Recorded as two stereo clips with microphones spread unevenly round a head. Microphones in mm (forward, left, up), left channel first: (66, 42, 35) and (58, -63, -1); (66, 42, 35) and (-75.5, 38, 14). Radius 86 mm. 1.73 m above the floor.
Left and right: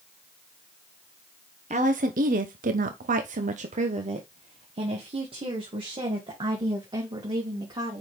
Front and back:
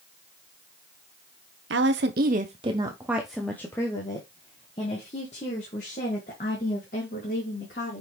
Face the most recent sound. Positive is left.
turn(degrees=-40)